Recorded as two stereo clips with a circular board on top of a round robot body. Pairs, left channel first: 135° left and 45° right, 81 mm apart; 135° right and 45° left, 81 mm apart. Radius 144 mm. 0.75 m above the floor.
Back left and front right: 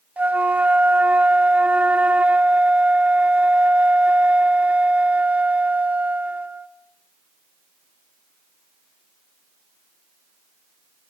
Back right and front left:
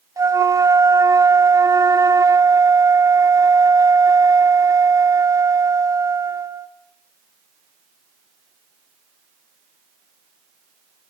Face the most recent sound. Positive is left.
turn(degrees=20)